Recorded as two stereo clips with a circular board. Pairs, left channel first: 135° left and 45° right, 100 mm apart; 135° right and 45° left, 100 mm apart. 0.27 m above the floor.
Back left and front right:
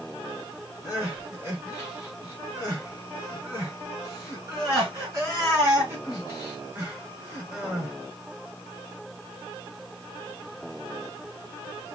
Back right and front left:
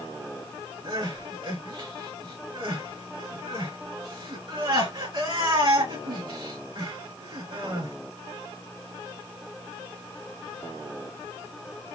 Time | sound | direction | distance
0.8 | crying | 20° left | 3 m